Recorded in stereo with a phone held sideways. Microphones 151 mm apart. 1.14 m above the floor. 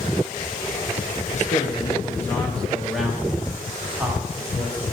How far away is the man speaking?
About 1.0 m.